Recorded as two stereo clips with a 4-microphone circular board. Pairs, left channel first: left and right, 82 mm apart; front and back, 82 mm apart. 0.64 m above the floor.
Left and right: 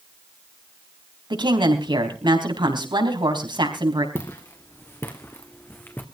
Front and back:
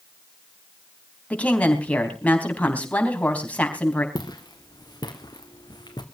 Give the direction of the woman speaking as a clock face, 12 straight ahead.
2 o'clock.